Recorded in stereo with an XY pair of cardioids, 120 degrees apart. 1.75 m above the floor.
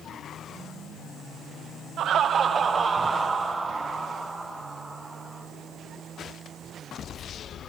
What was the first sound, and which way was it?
Laughter, 60° right.